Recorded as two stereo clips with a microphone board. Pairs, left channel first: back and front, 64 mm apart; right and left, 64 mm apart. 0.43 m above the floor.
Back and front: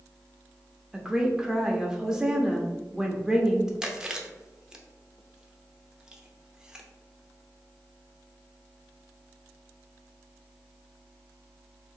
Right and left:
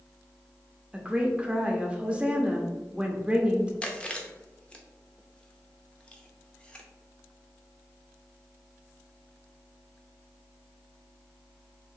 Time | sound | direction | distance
0.9 | a woman speaking | 55° left | 0.8 m
3.8 | chewing | 55° right | 0.7 m